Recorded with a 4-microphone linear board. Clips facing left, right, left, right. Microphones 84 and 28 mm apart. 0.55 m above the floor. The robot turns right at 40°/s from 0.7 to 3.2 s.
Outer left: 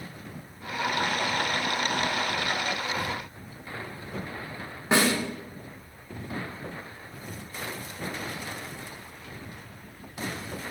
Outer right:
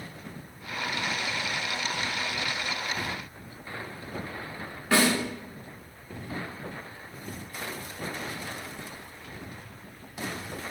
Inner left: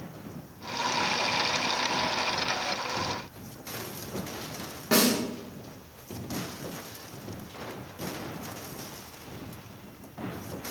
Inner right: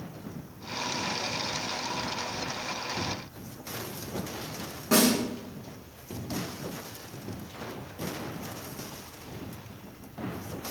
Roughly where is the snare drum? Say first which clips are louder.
Even, inner right 1 dB; left.